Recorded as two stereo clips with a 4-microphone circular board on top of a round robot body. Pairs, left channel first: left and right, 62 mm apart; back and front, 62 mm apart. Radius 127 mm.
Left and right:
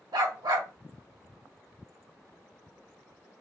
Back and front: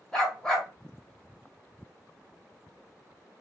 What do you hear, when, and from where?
0.1 s a dog barking: 100° right, 1.6 m